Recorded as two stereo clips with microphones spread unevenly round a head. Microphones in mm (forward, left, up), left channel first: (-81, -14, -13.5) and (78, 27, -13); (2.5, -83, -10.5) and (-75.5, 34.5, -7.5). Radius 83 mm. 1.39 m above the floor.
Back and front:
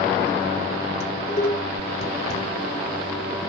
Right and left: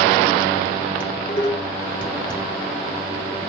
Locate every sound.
1.0 s dishes clattering: 110° right, 2.5 m